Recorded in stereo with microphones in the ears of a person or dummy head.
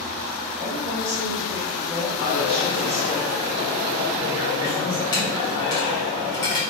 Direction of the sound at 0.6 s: 5° right (ahead or behind).